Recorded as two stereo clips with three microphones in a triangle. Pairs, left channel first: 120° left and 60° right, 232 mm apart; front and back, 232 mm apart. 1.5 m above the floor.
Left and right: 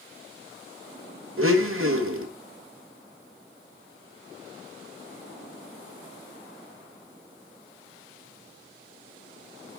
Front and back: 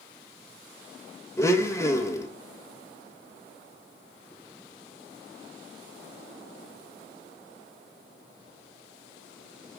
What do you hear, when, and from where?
1.4 s a blender: 80° right, 1.4 m